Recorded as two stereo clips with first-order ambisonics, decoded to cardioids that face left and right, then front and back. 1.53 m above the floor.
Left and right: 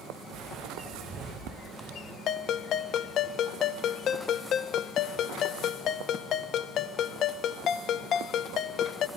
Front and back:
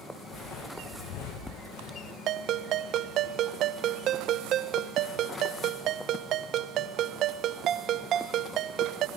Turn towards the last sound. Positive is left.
turn(degrees=140)